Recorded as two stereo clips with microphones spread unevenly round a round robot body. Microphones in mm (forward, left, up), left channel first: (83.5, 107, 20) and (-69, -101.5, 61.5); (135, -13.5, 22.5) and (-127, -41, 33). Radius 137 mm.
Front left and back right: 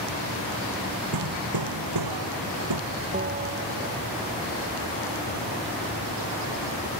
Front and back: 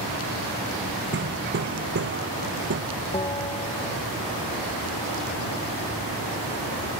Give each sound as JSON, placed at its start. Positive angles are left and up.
{"t": 1.1, "sound": "hammering", "azimuth_deg": -125}
{"t": 3.1, "sound": "a bell", "azimuth_deg": -65}